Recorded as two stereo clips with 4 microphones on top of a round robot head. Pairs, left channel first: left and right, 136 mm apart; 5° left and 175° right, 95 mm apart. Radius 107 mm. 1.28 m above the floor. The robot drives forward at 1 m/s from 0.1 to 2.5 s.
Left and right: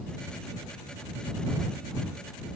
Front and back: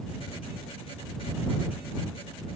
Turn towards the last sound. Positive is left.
No sound to turn to.